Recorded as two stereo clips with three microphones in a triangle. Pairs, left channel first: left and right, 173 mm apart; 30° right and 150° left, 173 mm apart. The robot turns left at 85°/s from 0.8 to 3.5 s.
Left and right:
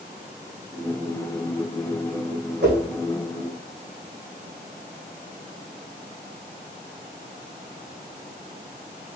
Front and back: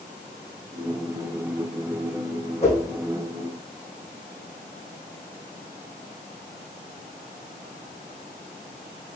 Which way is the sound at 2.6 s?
80° right.